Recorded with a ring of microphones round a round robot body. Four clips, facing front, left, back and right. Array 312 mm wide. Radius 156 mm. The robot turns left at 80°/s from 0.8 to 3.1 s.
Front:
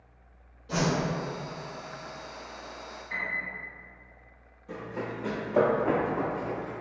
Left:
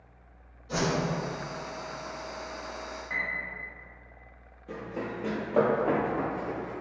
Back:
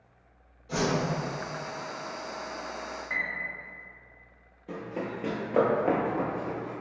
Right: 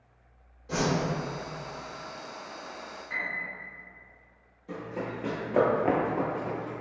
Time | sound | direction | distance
0.7 | a whoosh | 55° right | 1.5 m
3.1 | a piano | 155° left | 0.8 m
4.7 | running footsteps | 165° left | 0.9 m